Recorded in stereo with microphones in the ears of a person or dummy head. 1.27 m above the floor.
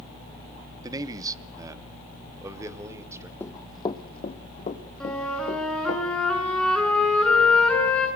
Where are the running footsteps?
15° left (ahead or behind), 2 m; by 6.0 s 45° left (ahead or behind), 5.5 m.